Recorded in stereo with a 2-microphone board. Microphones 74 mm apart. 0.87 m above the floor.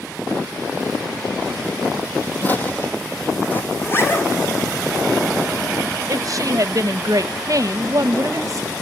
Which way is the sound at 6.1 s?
50° right (ahead or behind).